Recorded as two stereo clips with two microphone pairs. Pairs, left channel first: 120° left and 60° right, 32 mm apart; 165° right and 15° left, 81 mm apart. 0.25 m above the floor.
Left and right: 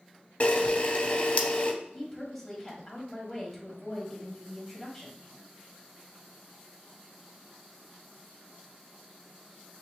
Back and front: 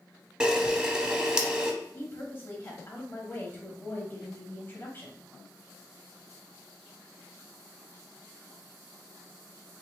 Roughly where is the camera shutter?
Left.